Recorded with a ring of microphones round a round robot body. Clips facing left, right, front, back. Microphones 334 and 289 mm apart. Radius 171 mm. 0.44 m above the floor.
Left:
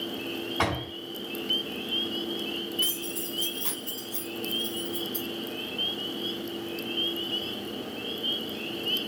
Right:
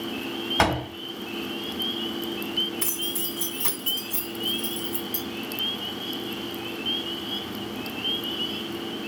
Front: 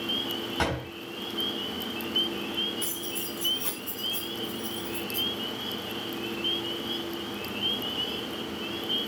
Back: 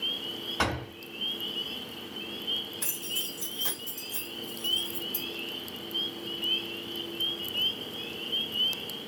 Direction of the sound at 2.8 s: 85° right.